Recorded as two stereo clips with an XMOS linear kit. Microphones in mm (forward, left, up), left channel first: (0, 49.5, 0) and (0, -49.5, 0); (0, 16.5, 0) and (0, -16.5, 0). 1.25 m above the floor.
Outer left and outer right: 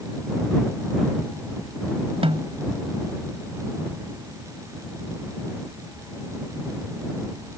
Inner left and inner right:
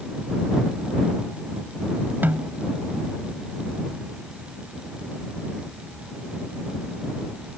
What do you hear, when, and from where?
2.2 s a snare drum: 70° right (ahead or behind)